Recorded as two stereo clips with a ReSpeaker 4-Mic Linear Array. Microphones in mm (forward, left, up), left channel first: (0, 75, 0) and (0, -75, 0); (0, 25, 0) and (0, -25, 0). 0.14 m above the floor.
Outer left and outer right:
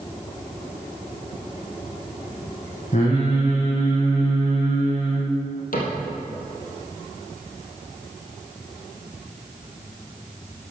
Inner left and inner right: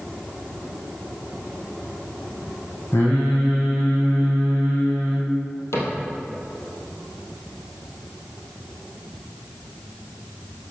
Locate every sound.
2.9 s singing: 50° left (ahead or behind), 4 m
5.7 s a cupboard door: 70° left (ahead or behind), 2.5 m